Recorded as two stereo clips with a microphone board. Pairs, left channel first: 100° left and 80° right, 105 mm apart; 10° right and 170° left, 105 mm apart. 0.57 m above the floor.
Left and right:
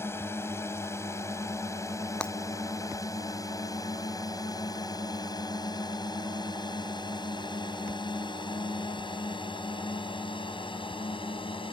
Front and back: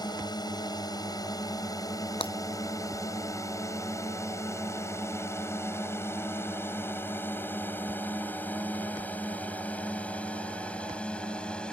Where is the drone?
35° left; by 11.7 s 70° left.